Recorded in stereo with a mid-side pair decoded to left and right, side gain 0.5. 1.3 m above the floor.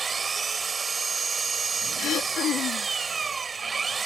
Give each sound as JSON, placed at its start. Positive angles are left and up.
{"t": 0.0, "sound": "an engine running", "azimuth_deg": -35}
{"t": 2.0, "sound": "throat clearing", "azimuth_deg": 65}